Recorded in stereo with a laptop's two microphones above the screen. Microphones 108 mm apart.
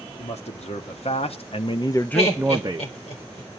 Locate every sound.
0.2 s a man speaking: 80° left, 2.0 m; by 2.9 s 40° right (ahead or behind), 0.9 m
2.1 s laughter: 75° left (ahead or behind), 4 m